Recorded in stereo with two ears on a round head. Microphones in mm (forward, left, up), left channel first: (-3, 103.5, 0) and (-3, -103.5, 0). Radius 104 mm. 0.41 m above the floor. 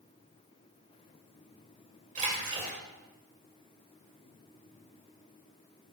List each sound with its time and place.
2.1 s a splash: 35° right (ahead or behind), 1.9 m